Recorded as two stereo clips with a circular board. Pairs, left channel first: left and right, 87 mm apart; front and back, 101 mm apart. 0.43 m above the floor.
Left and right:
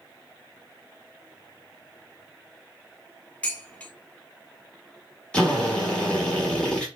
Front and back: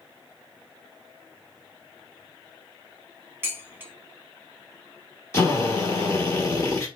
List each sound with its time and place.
3.4 s dishes clattering: 145° left, 0.7 m
5.3 s a drill: 20° left, 1.0 m